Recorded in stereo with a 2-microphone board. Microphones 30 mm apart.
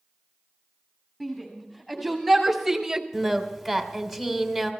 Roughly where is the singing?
Centre.